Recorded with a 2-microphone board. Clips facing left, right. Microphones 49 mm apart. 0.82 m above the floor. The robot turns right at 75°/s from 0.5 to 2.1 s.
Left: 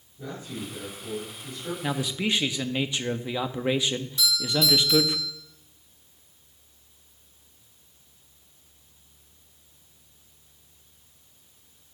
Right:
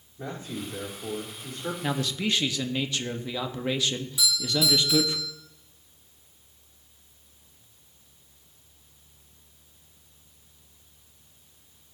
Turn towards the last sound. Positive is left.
turn(degrees=-10)  # may be behind; listen again after turning